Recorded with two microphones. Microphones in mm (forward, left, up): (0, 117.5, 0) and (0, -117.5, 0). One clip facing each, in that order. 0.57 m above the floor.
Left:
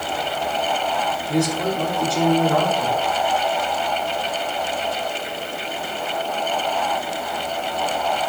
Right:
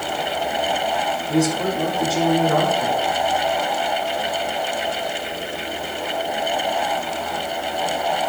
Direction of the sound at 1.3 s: 5° right (ahead or behind).